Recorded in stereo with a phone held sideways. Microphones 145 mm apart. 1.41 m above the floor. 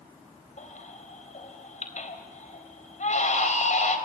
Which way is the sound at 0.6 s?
55° left (ahead or behind).